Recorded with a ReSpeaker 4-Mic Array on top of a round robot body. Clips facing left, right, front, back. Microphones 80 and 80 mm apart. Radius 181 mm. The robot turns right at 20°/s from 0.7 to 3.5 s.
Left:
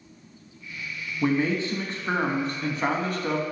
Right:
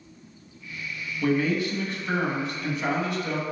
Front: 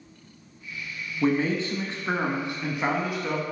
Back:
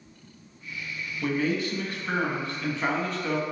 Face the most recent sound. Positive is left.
turn(degrees=80)